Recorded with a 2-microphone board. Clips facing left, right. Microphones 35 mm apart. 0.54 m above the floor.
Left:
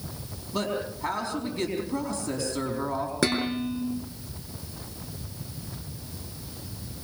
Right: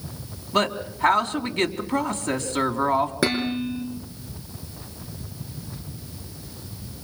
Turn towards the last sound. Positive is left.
turn(degrees=-10)  # may be behind; listen again after turning